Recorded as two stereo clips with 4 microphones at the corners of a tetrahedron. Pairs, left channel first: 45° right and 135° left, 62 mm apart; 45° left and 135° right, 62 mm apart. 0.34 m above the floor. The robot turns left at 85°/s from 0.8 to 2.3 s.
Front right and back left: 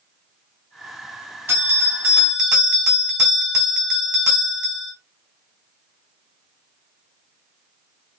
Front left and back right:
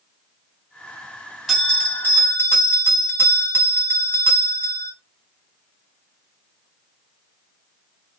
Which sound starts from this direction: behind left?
A bell, at 1.5 s.